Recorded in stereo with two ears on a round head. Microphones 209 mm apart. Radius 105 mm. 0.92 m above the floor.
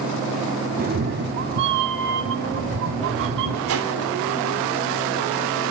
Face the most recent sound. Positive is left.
turn(degrees=-60)  # may be behind; listen again after turning